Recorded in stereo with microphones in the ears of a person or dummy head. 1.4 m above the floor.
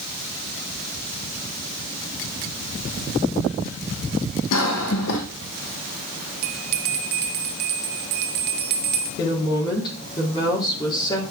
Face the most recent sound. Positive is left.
turn(degrees=25)  # may be behind; listen again after turning